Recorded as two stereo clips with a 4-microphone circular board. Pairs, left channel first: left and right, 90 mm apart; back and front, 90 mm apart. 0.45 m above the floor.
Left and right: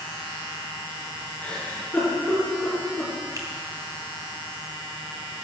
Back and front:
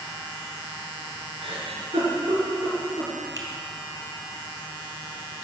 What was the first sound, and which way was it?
A giggle, 15° left.